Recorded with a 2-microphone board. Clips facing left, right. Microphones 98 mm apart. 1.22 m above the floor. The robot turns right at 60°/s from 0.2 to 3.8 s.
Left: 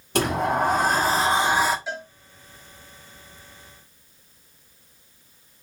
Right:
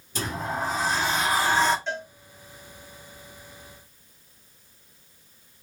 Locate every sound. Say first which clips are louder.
0.1 s a sliding door: left 8 dB; 85° left, 0.5 m; by 1.8 s straight behind, 0.5 m
1.9 s a cowbell: right 1 dB; 5° left (ahead or behind), 1.0 m; by 2.1 s 15° left (ahead or behind), 1.0 m